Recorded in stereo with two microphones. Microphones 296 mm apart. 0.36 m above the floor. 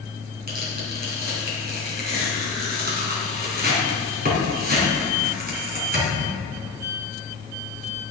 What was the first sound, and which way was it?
Tearing paper, 35° right (ahead or behind).